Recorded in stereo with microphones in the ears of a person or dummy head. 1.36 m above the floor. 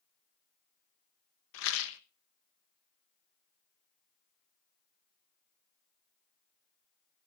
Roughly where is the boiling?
I don't hear boiling.